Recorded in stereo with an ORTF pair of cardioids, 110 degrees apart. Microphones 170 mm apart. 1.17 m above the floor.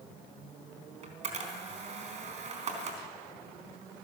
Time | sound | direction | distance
1.0 | a camera shutter | 45° right | 4 m